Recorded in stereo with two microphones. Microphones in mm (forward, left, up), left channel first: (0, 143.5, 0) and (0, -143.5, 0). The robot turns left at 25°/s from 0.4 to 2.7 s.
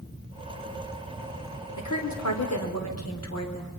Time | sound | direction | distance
1.8 | a woman speaking | 80° left | 4 m